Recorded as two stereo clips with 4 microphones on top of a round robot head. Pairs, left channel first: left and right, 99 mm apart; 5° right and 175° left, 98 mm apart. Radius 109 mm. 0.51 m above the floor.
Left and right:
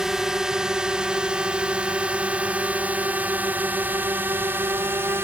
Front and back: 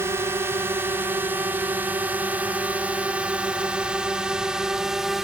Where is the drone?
170° right; by 5.2 s 105° right.